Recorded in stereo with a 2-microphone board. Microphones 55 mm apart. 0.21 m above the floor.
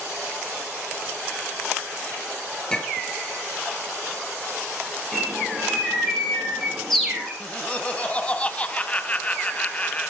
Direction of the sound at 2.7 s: 15° left (ahead or behind).